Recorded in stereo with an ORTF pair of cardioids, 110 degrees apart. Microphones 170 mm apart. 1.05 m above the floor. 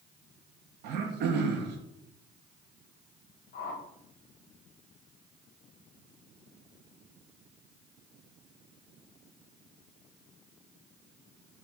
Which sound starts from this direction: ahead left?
A whoosh, at 3.5 s.